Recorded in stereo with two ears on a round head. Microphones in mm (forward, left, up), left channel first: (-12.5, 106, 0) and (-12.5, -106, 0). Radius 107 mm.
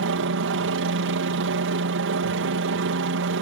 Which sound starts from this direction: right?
A helicopter, at 0.0 s.